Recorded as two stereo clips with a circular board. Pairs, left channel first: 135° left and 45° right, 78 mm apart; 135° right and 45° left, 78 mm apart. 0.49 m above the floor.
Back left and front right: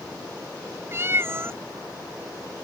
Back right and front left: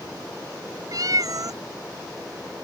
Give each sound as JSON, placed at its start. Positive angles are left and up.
{"t": 0.9, "sound": "a cat meowing", "azimuth_deg": 10}